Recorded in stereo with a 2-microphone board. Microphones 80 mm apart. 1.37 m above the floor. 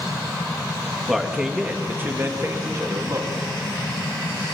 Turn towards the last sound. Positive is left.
turn(degrees=-45)  # may be behind; listen again after turning